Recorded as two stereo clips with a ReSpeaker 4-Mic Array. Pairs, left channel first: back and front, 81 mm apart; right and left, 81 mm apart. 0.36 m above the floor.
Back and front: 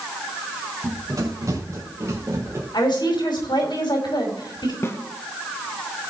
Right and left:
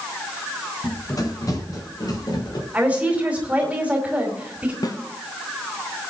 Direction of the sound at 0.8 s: 45° right.